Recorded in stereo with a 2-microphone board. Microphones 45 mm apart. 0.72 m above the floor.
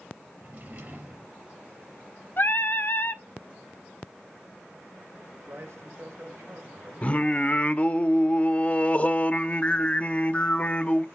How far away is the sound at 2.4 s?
About 0.8 m.